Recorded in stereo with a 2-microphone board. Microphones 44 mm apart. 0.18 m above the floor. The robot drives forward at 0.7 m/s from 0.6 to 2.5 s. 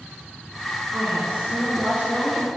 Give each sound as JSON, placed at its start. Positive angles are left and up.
{"t": 0.9, "sound": "a woman speaking", "side_deg": -45, "distance_m": 2.5}